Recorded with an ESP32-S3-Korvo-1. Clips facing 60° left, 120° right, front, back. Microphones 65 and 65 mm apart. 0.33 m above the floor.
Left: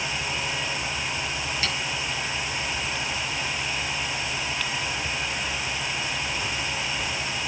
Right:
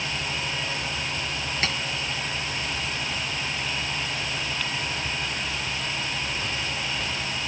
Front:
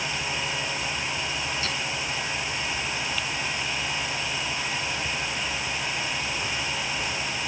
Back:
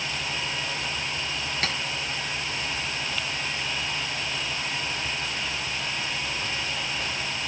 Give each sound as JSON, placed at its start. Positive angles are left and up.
{"t": 1.6, "sound": "tapping", "azimuth_deg": -165, "distance_m": 6.5}